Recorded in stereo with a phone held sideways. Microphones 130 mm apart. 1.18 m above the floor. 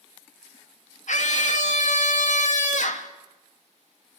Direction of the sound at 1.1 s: 70° left (ahead or behind).